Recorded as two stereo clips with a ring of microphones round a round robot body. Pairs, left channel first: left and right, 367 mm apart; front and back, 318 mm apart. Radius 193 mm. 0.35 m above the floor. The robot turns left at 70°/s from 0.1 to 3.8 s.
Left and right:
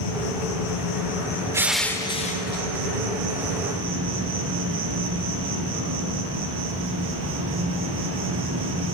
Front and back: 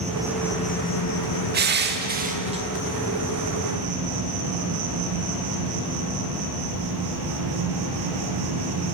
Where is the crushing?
165° right, 0.8 m; by 2.6 s 120° left, 0.8 m.